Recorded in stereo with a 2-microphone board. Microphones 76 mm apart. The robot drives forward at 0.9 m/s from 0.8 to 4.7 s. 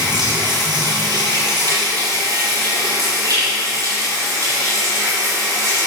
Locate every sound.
0.0 s running water: 65° right (ahead or behind), 6.5 m; by 5.9 s 45° right (ahead or behind), 9 m